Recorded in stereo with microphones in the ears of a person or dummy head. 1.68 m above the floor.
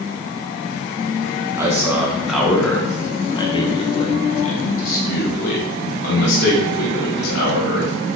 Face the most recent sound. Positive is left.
turn(degrees=80)